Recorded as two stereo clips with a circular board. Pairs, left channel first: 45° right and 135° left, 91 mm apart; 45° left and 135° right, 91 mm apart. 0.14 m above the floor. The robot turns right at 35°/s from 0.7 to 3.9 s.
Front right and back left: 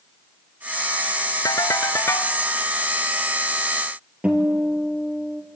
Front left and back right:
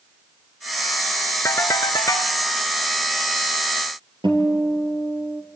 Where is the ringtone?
10° right, 0.7 m; by 2.4 s 20° left, 0.7 m.